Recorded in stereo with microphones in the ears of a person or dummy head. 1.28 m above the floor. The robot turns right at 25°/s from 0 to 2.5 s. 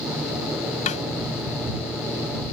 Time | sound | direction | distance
0.9 | a snare drum | 40° left (ahead or behind) | ?